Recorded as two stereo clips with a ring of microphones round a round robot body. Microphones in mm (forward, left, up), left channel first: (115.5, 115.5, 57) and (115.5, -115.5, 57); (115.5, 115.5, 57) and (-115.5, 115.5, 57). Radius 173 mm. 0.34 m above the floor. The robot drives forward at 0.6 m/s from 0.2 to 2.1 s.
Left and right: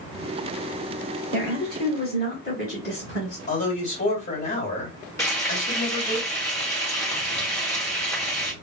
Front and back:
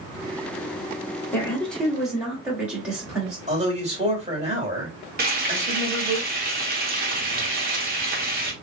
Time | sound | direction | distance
1.3 | a woman speaking | 75° left | 1.8 m
3.5 | a man speaking | 125° left | 2 m
5.2 | frying | 165° left | 1.2 m